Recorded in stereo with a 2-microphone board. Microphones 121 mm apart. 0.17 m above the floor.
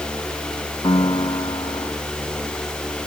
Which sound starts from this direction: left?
A piano, at 0.8 s.